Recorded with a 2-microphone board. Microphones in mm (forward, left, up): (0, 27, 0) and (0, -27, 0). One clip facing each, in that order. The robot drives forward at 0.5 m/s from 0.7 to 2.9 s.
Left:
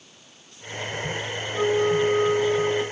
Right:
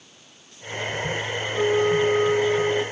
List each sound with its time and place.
1.5 s a flute: 15° left (ahead or behind), 4 m; by 2.8 s 10° left (ahead or behind), 4.5 m